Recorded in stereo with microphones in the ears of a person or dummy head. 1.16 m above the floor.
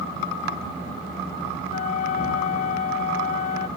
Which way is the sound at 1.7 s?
30° left (ahead or behind).